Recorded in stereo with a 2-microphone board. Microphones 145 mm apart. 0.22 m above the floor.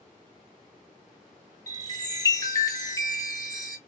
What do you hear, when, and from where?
1.7 s a chime: 25° left (ahead or behind), 0.9 m